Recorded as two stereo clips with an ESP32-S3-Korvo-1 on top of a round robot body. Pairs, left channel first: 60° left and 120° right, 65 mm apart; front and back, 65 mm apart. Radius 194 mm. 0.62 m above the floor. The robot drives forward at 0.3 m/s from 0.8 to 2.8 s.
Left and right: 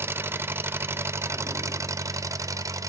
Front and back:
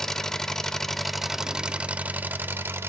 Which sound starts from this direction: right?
An engine running, at 0.0 s.